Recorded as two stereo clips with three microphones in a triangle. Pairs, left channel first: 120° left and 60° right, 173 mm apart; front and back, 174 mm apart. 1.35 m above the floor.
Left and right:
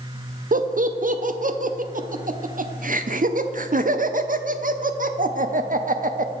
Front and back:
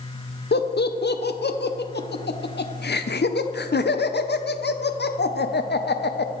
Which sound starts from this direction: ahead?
Laughter, at 0.5 s.